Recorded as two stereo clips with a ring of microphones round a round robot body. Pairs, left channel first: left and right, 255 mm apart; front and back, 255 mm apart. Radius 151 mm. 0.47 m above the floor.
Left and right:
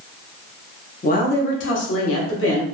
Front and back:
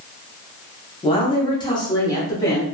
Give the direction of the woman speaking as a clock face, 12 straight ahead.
10 o'clock.